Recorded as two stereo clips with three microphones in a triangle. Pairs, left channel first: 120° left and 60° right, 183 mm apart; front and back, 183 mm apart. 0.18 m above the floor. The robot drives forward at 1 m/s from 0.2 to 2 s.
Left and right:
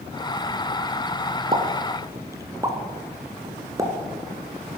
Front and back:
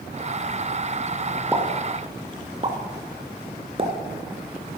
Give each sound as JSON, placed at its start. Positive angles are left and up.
{"t": 1.5, "sound": "a pop", "azimuth_deg": -105, "distance_m": 1.3}